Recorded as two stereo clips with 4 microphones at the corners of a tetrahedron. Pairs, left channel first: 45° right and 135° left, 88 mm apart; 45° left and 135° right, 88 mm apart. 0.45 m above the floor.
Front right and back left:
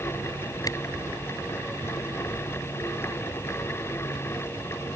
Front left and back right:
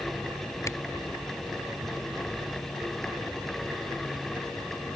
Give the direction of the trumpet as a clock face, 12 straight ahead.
No trumpet in this recording.